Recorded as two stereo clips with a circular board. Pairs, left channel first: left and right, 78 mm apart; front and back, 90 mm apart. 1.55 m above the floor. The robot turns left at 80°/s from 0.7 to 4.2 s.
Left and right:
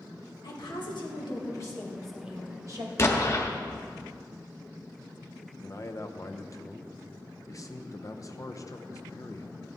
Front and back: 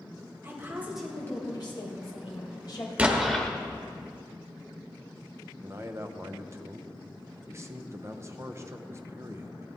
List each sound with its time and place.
0.4 s a woman speaking: 115° left, 2.5 m; by 2.9 s 60° right, 2.5 m
3.0 s an explosion: 115° left, 1.2 m; by 3.5 s 75° left, 1.2 m
5.6 s a man speaking: 125° left, 0.8 m